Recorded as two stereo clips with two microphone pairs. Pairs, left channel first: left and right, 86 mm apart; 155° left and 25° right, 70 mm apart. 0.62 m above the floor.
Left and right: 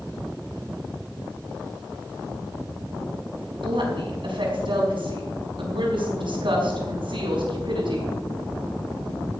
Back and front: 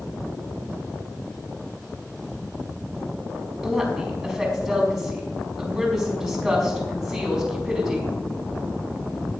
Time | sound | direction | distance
3.6 | a woman speaking | 110° right | 5 m